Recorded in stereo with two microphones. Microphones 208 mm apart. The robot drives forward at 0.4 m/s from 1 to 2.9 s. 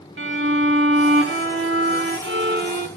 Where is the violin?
70° right (ahead or behind), 0.7 m; by 2.9 s 50° right (ahead or behind), 0.9 m.